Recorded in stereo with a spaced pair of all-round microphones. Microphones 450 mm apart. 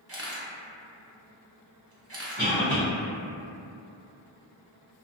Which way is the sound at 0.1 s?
30° right (ahead or behind).